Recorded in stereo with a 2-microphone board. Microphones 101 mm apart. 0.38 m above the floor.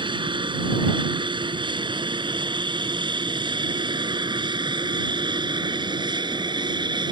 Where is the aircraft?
55° right (ahead or behind); by 7.1 s 50° right (ahead or behind).